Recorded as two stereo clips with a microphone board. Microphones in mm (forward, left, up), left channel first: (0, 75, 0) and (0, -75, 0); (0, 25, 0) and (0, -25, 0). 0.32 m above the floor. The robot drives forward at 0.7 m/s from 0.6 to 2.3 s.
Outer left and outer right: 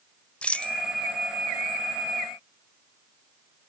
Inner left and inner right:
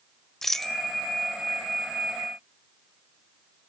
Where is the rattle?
10° left (ahead or behind), 0.6 m; by 0.7 s 5° left (ahead or behind), 0.6 m.